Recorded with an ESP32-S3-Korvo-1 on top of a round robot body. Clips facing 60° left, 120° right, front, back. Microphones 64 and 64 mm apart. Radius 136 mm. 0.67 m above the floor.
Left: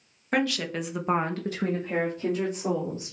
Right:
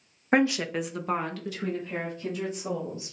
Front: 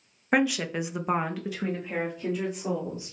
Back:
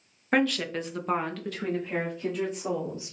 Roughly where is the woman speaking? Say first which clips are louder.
Right 3 dB, front 1 dB; right.